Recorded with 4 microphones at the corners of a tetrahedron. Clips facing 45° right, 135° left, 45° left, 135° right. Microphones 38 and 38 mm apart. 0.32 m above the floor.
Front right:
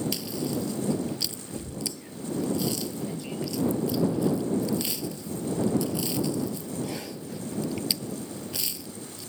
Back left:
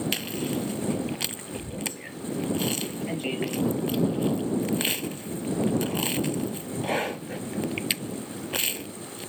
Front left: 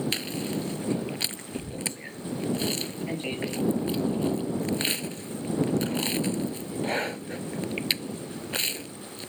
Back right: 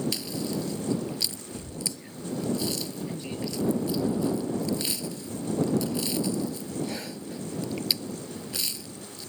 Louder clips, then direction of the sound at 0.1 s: Back left 1 dB, front left 1 dB; 90° left.